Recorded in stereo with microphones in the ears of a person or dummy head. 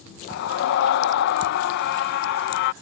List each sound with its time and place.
0.3 s a scream: 55° left (ahead or behind)